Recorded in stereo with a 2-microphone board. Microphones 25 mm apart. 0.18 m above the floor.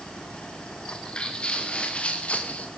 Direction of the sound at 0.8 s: 35° left (ahead or behind).